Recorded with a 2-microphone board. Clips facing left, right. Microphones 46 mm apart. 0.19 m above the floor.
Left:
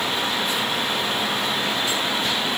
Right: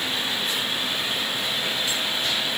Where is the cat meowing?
No cat meowing in this recording.